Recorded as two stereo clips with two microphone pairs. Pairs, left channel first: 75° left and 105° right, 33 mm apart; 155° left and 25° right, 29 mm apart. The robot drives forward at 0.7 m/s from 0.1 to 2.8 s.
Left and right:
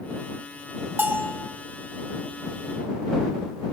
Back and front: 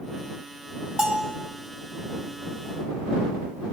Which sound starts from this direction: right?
A bell, at 1.0 s.